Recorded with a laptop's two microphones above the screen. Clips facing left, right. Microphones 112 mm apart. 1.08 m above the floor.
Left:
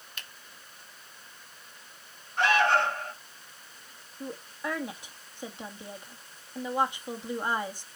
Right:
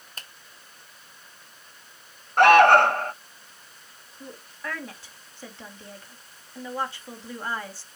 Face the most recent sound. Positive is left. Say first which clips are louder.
# left 3 dB
turn(degrees=15)  # may be behind; listen again after turning